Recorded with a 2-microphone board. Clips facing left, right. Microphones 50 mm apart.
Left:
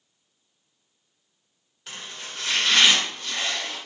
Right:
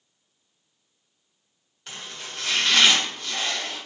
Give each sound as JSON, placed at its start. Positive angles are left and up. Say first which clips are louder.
{"t": 1.9, "sound": "chopping", "louder": "even", "side_deg": 0, "distance_m": 1.0}